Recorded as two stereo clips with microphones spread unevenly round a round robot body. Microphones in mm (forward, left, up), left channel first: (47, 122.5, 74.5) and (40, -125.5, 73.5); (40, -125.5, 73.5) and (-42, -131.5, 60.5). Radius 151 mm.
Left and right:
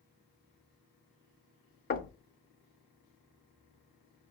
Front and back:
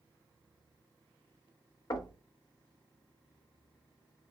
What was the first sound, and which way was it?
Knocking, 40° left.